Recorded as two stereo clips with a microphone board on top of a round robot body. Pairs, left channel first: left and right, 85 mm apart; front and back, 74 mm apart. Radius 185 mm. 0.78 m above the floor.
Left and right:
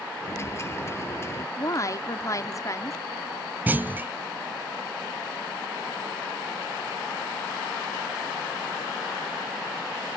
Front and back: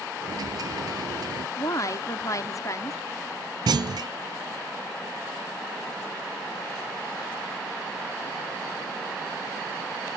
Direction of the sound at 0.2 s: 150° left.